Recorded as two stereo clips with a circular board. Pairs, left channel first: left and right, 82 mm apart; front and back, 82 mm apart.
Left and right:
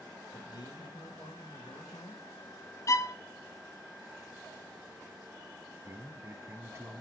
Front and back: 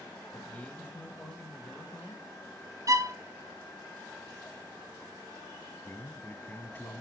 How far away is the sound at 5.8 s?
About 1.3 m.